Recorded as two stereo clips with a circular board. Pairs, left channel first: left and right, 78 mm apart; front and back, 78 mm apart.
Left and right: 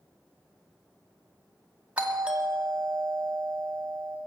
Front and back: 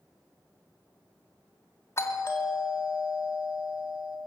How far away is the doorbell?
About 2 m.